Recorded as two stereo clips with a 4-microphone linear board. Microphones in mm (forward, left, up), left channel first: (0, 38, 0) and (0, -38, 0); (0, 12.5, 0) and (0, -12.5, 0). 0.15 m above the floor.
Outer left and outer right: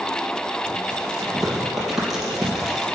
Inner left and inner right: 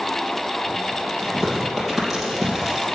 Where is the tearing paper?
Centre (ahead or behind), 4 m.